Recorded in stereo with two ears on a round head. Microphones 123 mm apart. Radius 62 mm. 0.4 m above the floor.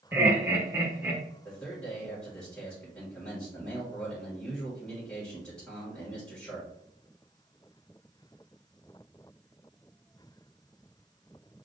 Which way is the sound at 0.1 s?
15° right (ahead or behind).